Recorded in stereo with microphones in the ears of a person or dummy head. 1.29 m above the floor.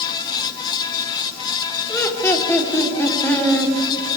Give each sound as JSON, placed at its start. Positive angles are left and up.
{"t": 1.9, "sound": "laughter", "side_deg": 20, "distance_m": 3.5}